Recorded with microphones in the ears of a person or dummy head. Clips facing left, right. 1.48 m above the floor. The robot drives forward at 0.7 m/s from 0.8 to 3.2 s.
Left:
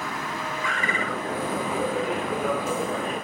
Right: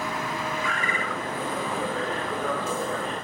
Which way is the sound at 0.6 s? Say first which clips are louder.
Left 1 dB; 65° left (ahead or behind).